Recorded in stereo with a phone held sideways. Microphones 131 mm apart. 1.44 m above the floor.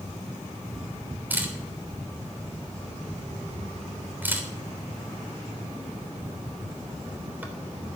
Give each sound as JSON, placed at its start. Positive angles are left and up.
{"t": 1.3, "sound": "a camera shutter", "side_deg": -15, "distance_m": 3.0}